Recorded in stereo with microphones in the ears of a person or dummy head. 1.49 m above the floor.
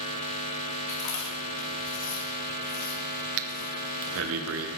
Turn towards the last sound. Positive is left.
turn(degrees=-80)